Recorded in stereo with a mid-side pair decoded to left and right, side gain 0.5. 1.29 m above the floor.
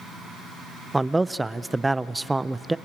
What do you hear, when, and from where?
0.9 s a man speaking: 15° right, 0.5 m